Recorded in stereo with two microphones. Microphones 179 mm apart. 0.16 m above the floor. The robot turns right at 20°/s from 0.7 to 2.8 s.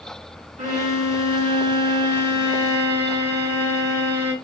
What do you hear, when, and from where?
0.6 s a violin: 60° right, 2 m; by 4.3 s 20° right, 2 m